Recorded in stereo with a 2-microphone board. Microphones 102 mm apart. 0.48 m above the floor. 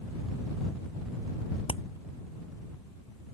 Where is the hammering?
65° left (ahead or behind).